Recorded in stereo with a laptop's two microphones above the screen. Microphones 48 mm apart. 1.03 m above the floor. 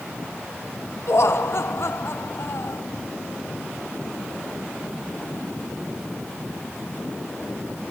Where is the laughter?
65° left (ahead or behind), 0.9 m.